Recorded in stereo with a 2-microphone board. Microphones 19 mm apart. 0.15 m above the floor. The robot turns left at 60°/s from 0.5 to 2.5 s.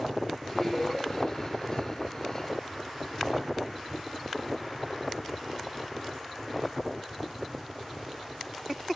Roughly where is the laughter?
Centre.